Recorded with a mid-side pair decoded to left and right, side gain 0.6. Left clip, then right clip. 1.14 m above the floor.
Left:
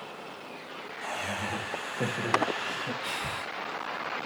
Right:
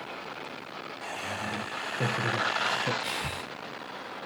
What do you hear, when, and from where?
1.0 s laughter: 10° left, 2.0 m; by 2.9 s 45° right, 0.8 m
3.0 s breathing: 25° right, 1.3 m